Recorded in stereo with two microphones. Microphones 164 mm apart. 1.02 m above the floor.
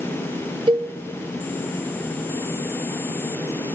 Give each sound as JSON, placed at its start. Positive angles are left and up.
{"t": 0.7, "sound": "a cowbell", "side_deg": -30, "distance_m": 0.7}